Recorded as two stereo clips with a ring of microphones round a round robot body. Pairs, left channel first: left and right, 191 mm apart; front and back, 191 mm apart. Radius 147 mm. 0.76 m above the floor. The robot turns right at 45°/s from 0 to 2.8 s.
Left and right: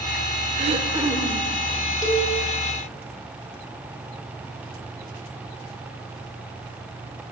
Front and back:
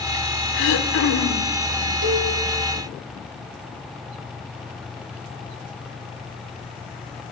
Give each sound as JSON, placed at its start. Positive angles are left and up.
{"t": 0.5, "sound": "throat clearing", "azimuth_deg": -30, "distance_m": 1.5}
{"t": 2.0, "sound": "a cowbell", "azimuth_deg": 165, "distance_m": 2.5}